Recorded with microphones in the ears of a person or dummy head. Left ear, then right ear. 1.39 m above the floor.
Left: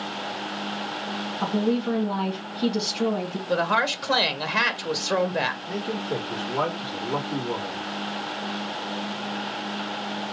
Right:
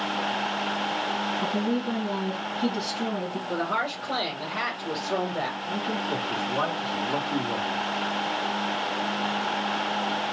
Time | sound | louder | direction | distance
1.4 | a woman speaking | left 2 dB | 60° left (ahead or behind) | 1.7 m
3.5 | a woman speaking | left 6 dB | 50° left (ahead or behind) | 1.4 m
5.7 | a man speaking | right 1 dB | 5° left (ahead or behind) | 2 m